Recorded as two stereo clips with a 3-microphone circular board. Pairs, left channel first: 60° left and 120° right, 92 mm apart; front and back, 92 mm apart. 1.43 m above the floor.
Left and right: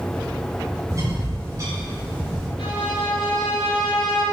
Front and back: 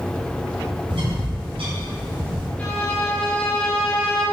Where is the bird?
175° right, 7 m.